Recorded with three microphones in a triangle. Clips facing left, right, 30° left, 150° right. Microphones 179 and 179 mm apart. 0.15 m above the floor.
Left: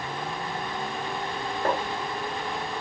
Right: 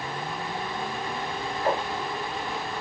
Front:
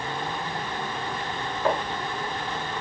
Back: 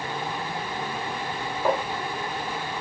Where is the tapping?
130° left, 4.5 m.